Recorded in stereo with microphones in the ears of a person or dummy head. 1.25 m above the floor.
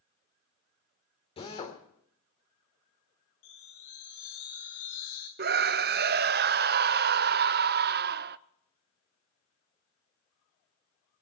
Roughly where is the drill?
Left.